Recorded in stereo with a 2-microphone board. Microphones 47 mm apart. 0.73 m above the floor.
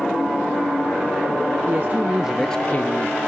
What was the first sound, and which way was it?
A man speaking, 50° right (ahead or behind).